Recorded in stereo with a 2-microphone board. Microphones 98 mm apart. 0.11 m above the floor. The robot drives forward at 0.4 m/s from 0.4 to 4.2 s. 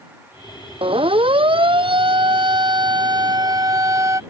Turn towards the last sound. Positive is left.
turn(degrees=-35)  # may be behind; listen again after turning